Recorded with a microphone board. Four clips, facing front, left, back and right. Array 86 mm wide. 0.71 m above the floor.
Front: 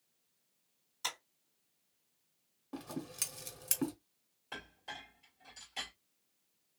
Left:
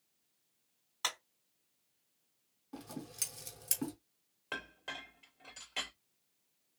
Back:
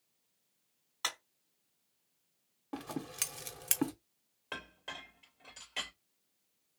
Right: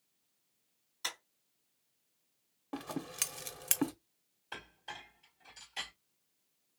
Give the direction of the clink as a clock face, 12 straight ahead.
8 o'clock.